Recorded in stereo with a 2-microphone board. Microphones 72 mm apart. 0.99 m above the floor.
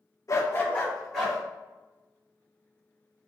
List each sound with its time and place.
0.3 s a dog barking: 45° left (ahead or behind), 0.7 m; by 1.4 s 5° left (ahead or behind), 1.7 m